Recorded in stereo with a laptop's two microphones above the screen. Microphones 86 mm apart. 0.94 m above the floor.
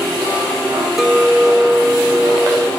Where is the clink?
5° right (ahead or behind), 2.5 m.